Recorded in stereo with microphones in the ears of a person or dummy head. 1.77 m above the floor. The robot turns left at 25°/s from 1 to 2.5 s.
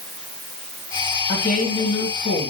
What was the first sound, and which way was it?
A woman speaking, 140° left.